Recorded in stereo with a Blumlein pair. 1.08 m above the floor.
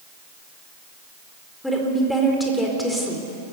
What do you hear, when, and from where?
1.6 s a woman speaking: 5° left, 4 m